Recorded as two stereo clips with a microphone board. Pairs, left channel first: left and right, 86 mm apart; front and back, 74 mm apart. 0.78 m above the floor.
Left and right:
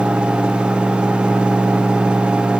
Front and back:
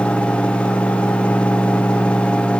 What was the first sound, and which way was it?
Only background noise.